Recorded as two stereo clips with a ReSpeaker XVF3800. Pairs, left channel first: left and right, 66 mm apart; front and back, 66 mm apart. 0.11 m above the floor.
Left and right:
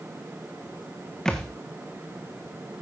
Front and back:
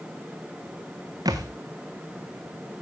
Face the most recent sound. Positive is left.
turn(degrees=170)